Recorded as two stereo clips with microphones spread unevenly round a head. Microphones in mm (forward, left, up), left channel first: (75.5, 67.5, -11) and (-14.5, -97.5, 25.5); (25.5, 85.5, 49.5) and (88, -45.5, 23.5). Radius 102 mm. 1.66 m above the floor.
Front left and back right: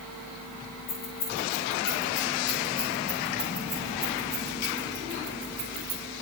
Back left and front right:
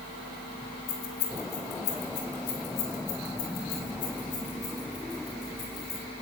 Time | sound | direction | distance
0.9 | keys jangling | 125° left | 3 m